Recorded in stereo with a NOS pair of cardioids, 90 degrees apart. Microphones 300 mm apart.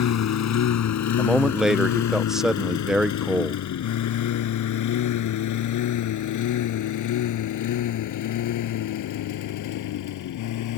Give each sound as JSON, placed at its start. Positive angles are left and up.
{"t": 0.0, "sound": "a lawn mower", "azimuth_deg": 60}
{"t": 1.2, "sound": "a man speaking", "azimuth_deg": 0}